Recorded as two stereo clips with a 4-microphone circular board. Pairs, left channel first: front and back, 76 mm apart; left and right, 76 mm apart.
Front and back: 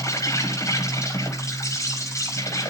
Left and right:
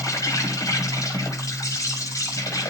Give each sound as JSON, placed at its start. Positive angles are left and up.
{"t": 0.0, "sound": "an insect", "azimuth_deg": 45, "distance_m": 5.0}